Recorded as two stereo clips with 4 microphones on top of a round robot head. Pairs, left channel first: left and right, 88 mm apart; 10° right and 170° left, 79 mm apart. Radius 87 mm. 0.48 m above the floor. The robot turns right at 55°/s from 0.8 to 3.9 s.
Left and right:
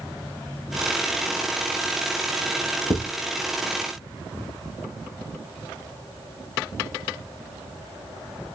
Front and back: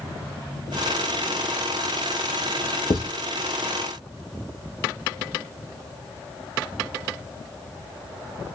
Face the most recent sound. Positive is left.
turn(degrees=75)